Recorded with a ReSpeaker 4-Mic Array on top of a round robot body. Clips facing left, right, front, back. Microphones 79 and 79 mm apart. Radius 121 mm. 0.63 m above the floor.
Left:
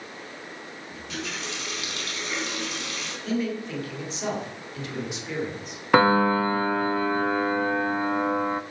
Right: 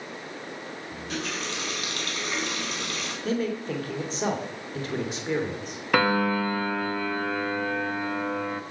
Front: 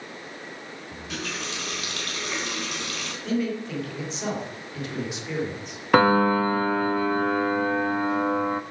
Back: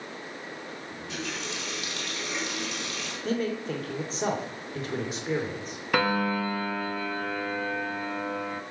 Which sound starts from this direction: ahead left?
A piano, at 5.9 s.